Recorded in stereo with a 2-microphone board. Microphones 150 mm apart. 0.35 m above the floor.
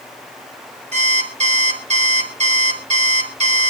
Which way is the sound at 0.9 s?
50° right (ahead or behind).